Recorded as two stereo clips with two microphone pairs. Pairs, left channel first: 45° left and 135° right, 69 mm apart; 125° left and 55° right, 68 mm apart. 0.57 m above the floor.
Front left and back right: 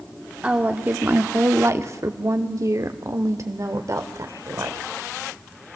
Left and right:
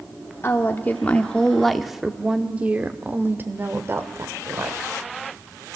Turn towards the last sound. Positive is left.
turn(degrees=-100)